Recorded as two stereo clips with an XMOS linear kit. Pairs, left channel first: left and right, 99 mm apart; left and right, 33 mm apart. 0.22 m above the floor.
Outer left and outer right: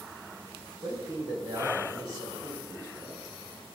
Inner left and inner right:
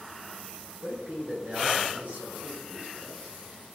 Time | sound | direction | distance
0.8 | a man speaking | 40° right (ahead or behind) | 2.5 m